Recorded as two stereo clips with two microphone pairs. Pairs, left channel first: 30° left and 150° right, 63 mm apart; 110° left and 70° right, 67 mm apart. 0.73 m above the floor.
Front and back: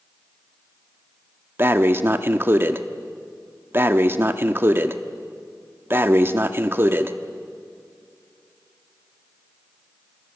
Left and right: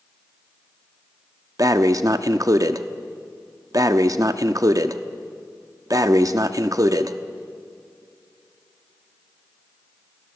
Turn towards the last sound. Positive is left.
turn(degrees=-105)